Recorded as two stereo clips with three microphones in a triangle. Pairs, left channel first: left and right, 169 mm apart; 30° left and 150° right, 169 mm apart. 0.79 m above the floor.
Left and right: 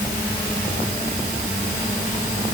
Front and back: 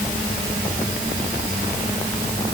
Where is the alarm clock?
No alarm clock in this recording.